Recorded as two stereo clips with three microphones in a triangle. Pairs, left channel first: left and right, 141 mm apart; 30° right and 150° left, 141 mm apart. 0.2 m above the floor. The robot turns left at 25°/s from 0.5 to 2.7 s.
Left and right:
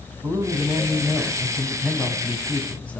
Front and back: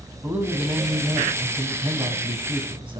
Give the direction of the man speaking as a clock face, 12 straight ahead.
5 o'clock.